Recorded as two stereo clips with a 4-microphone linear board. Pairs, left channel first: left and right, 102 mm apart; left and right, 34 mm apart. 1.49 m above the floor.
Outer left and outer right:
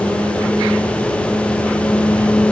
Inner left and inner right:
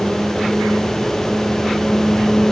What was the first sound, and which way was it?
Only background noise.